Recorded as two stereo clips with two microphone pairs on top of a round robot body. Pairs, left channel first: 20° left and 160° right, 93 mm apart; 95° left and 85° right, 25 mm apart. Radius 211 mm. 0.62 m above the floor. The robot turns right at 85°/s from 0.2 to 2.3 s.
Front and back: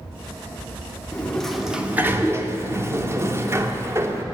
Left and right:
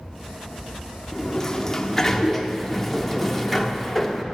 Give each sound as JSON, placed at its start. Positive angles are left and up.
{"t": 1.1, "sound": "a sliding door", "azimuth_deg": 65, "distance_m": 1.0}